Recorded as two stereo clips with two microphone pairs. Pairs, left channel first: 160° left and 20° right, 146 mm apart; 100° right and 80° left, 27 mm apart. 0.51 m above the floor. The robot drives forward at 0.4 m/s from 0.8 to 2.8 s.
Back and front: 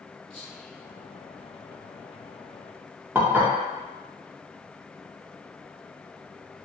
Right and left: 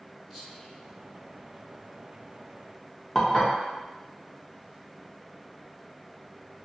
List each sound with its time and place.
0.3 s whispering: straight ahead, 1.6 m
3.1 s dishes clattering: 65° right, 0.6 m